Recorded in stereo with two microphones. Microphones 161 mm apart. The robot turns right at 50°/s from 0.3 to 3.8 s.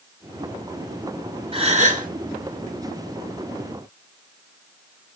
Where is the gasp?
35° right (ahead or behind), 0.7 m; by 2.1 s 55° right (ahead or behind), 0.7 m.